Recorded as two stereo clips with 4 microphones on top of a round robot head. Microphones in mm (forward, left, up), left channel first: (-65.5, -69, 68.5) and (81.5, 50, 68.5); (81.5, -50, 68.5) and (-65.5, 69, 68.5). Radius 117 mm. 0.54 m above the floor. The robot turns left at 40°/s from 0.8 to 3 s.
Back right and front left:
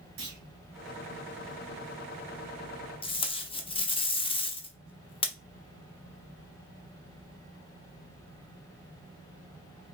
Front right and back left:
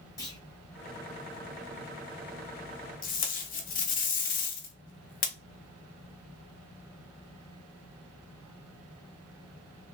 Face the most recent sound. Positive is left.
turn(degrees=-80)